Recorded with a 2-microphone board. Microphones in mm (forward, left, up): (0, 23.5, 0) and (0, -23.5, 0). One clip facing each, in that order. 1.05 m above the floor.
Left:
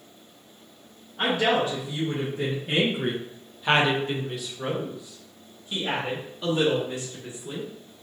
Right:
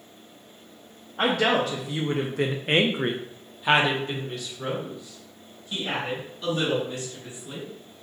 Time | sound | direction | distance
1.2 | a woman speaking | 60° right (ahead or behind) | 1.0 m